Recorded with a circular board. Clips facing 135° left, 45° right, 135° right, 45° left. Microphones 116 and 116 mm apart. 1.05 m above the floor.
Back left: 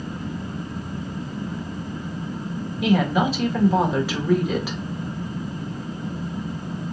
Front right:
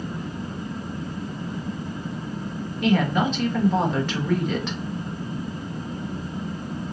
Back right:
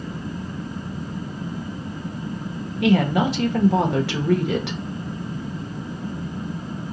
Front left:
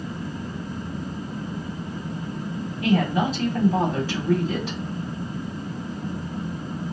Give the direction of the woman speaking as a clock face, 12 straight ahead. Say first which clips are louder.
Back left 1 dB, back right 3 dB; 5 o'clock.